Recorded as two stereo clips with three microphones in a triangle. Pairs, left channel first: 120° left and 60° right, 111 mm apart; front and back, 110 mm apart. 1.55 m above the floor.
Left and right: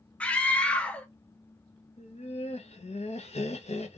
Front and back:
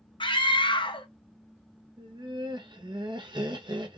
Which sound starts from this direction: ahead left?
A scream, at 0.2 s.